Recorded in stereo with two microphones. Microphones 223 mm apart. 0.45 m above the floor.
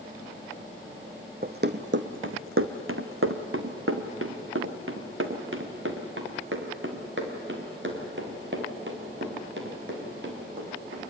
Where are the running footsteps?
45° right (ahead or behind), 1.1 m; by 11.1 s 55° right (ahead or behind), 7 m.